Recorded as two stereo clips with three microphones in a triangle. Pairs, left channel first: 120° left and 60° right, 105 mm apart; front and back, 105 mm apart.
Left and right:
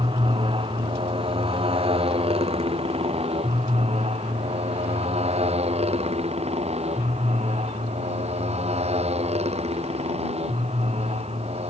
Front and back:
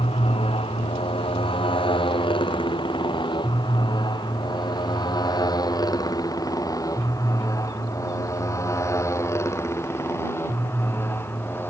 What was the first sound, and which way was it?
A motorcycle, 25° right.